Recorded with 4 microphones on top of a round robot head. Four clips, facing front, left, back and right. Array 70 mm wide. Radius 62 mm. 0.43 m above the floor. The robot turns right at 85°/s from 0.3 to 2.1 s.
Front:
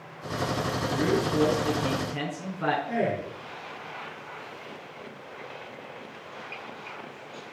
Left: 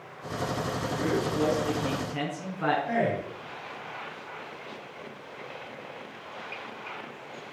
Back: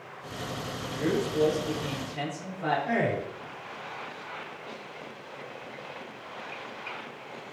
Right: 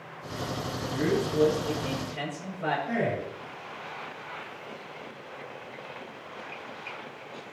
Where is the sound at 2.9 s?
155° left, 4 m.